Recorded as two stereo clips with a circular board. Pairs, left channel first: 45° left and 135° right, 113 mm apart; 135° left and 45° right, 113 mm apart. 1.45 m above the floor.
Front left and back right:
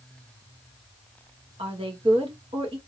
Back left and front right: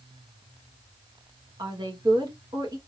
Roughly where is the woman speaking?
Right.